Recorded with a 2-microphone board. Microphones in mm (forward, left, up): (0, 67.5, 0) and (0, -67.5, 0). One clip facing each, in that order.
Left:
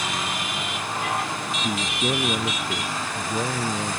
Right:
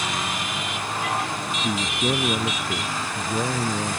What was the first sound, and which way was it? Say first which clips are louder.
A man speaking: right 1 dB; 5° right (ahead or behind).